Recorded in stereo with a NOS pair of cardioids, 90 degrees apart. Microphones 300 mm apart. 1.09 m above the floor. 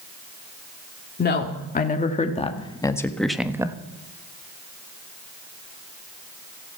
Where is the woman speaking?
30° left, 2.5 m; by 3.8 s 15° right, 1.3 m.